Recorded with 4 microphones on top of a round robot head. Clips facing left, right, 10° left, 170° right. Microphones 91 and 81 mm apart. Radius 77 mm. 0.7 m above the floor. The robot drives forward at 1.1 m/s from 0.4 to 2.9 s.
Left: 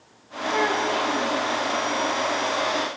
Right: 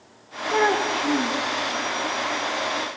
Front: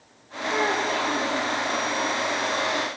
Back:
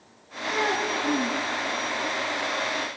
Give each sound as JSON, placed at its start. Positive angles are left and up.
{"t": 0.5, "sound": "a child speaking", "azimuth_deg": -55, "distance_m": 0.7}